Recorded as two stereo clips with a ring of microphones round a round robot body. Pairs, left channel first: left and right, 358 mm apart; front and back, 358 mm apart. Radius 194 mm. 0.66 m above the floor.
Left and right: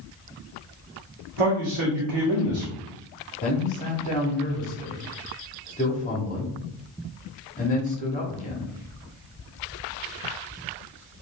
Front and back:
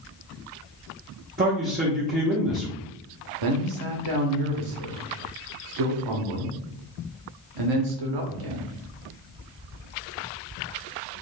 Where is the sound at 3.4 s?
160° left, 1.0 m.